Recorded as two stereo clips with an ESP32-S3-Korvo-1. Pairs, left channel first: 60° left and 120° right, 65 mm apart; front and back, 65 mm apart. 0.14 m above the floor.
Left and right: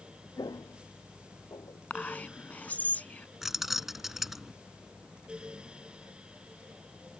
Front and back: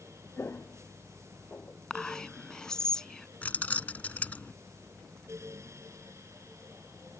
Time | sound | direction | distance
0.4 | footsteps | 55° left | ?
1.9 | whispering | 65° left | ?
3.4 | keys jangling | 35° right | ?